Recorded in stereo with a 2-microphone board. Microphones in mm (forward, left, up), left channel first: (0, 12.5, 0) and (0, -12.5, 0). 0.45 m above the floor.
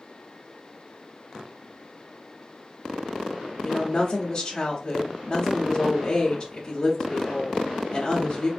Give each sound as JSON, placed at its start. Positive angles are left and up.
{"t": 3.6, "sound": "a woman speaking", "side_deg": 25, "distance_m": 0.8}